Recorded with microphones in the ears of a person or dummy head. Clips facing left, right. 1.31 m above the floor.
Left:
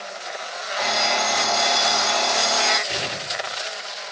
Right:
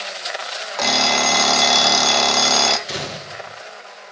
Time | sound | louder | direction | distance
0.8 | an alarm clock | right 4 dB | 55° right (ahead or behind) | 0.7 m
2.9 | a gunshot | even | 70° right (ahead or behind) | 1.8 m